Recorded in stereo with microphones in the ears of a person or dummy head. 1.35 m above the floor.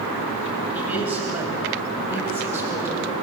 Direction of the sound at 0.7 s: 15° right (ahead or behind).